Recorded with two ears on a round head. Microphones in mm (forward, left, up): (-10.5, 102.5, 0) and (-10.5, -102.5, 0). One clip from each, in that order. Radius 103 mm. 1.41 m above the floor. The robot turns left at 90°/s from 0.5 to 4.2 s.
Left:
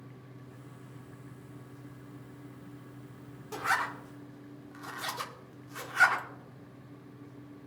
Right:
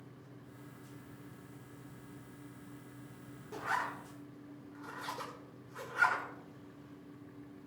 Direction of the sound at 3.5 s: 45° left (ahead or behind).